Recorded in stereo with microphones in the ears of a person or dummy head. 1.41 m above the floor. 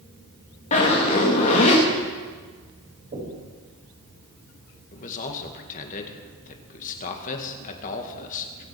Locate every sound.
0.7 s a zipper: 35° left (ahead or behind), 2.5 m
3.1 s knocking: 45° right (ahead or behind), 5 m
4.9 s a man speaking: 45° left (ahead or behind), 2.0 m